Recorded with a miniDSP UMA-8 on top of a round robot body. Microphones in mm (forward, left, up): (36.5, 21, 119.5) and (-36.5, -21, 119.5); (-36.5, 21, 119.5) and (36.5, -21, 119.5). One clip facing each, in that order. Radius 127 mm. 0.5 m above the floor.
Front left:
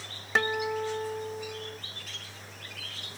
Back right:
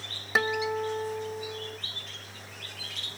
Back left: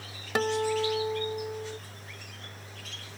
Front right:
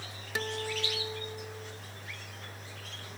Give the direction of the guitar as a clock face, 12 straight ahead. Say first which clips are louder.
Back right 1 dB, back left 9 dB; 8 o'clock.